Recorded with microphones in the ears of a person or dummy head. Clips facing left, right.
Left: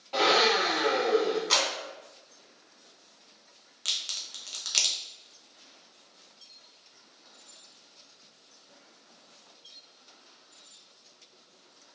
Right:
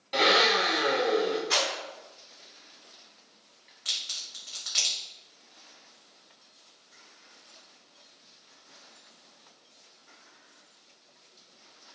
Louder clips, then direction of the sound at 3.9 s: Left 1 dB; 45° left (ahead or behind).